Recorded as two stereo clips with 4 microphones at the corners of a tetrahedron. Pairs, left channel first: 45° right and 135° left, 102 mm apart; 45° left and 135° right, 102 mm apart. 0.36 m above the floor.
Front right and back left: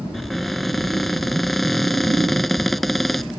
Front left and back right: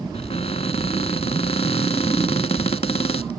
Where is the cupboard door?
45° left.